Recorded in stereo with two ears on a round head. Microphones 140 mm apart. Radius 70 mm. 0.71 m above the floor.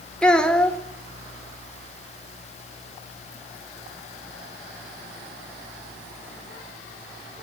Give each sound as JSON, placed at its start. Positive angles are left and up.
{"t": 0.2, "sound": "a child speaking", "side_deg": 5, "distance_m": 1.1}